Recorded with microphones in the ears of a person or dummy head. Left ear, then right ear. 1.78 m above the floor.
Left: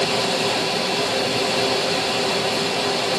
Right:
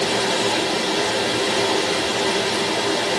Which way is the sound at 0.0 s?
20° right (ahead or behind).